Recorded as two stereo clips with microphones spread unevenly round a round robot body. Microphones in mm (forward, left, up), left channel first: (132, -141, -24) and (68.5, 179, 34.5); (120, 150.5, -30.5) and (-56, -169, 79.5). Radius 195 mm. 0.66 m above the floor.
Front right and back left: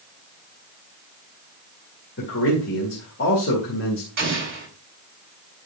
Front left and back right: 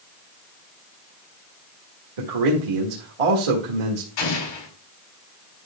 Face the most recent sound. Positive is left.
turn(degrees=45)